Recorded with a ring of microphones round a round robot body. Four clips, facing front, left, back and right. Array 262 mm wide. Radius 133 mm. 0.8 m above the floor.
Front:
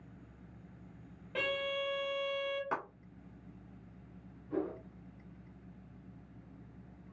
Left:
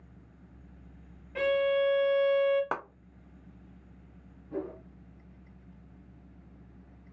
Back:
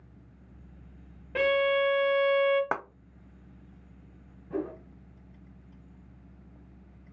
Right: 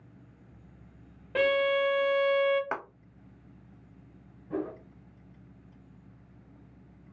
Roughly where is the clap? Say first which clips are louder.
Left 1 dB, back 5 dB; behind.